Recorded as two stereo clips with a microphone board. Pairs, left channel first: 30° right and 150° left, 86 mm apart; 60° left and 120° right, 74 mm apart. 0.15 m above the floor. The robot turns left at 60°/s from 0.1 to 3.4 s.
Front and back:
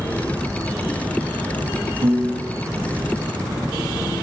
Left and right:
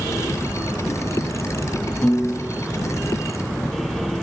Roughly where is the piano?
Behind left.